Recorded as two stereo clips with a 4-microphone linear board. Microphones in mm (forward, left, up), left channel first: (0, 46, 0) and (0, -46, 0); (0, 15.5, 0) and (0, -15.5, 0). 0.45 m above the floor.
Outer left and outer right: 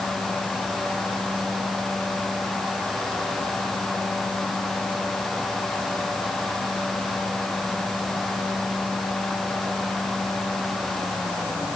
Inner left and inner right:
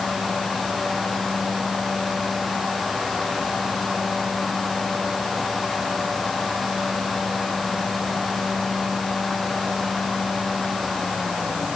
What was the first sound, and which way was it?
Only background noise.